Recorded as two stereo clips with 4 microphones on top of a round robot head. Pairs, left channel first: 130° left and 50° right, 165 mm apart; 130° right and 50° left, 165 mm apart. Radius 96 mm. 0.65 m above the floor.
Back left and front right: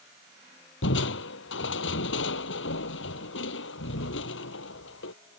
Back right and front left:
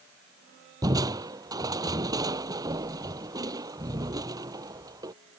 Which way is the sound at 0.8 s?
120° left.